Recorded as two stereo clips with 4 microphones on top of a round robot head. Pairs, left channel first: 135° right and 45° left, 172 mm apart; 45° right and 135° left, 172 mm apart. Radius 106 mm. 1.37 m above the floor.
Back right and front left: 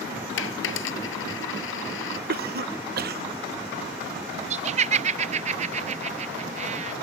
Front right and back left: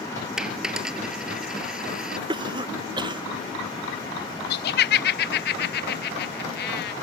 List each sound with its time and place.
0.4 s a dropped coin: 135° right
2.3 s a cough: 70° left
4.5 s laughter: 10° right